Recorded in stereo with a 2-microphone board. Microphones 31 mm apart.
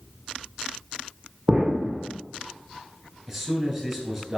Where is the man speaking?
15° right (ahead or behind), 1.3 m.